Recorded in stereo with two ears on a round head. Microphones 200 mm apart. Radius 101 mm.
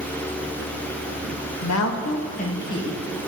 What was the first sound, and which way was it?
A woman speaking, 80° left.